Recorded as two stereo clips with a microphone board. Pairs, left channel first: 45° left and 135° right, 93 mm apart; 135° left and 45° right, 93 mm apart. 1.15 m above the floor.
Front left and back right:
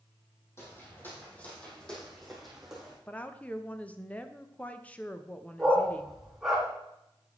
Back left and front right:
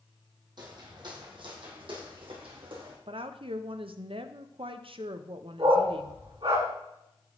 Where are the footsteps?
15° right, 2.5 m; by 3.0 s 50° right, 3 m.